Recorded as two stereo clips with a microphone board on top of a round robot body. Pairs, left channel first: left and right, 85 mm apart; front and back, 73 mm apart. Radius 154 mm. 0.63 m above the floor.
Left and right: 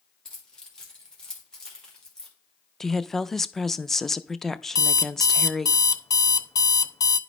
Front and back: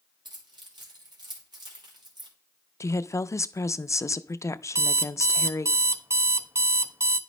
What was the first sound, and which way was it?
Keys jangling, 170° left.